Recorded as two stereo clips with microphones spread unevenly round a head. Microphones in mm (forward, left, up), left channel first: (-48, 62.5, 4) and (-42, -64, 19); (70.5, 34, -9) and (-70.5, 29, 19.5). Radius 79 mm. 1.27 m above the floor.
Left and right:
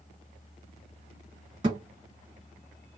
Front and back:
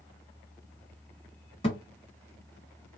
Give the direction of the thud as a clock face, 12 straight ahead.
2 o'clock.